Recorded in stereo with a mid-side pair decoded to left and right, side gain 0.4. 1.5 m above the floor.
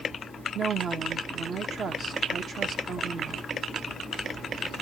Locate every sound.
0.6 s a woman speaking: 60° right, 1.6 m